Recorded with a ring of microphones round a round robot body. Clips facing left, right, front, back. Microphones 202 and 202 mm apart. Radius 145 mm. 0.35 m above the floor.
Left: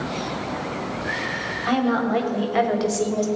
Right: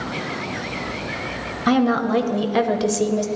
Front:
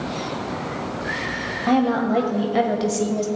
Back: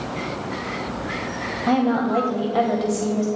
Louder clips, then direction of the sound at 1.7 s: Right 3 dB, front 1 dB; 90° right.